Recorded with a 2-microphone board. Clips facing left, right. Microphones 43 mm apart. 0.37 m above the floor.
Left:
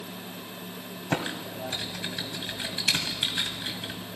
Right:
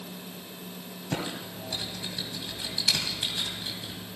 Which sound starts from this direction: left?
Typing on a keyboard, at 1.1 s.